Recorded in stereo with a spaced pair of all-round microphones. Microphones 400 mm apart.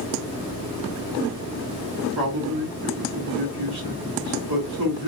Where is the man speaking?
65° right (ahead or behind), 2.5 m.